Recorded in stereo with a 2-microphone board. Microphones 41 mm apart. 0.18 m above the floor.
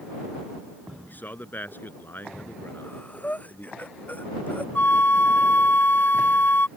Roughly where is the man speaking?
Left.